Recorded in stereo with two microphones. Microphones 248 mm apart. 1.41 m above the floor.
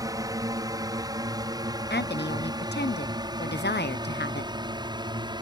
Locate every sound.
0.0 s a drone: 15° right (ahead or behind); by 5.4 s 20° right (ahead or behind)
1.9 s a woman speaking: 45° left (ahead or behind)